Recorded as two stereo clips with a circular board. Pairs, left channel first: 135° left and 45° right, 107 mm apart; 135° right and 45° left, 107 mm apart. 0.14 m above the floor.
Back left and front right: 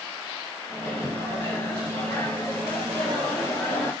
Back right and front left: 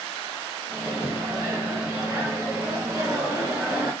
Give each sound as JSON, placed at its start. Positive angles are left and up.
{"t": 0.7, "sound": "a microwave", "azimuth_deg": 90, "distance_m": 1.6}